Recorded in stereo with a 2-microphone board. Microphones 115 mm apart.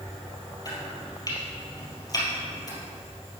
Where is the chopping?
35° left (ahead or behind), 3 m.